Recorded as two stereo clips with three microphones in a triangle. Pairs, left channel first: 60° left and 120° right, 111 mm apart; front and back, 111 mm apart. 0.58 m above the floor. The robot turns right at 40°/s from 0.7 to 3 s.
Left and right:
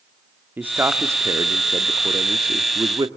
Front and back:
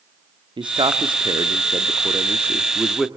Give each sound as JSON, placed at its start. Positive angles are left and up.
{"t": 0.6, "sound": "a man speaking", "azimuth_deg": 175, "distance_m": 1.0}